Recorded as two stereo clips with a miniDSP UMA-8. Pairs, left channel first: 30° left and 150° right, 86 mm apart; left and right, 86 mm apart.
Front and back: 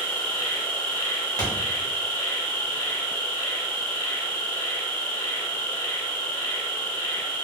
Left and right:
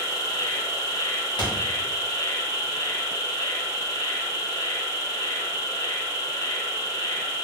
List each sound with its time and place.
0.0 s an insect: 50° left, 1.4 m
1.4 s a thud: 75° left, 1.2 m